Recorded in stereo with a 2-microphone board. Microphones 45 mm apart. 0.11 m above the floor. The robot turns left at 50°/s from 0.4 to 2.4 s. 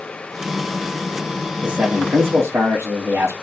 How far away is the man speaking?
About 7.5 m.